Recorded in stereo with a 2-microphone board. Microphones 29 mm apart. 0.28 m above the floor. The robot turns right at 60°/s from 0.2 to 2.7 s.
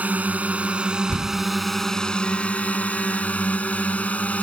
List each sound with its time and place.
0.0 s a drone: 80° right; by 4.4 s 70° left
1.1 s a door slam: 45° left (ahead or behind); by 1.5 s 60° left (ahead or behind)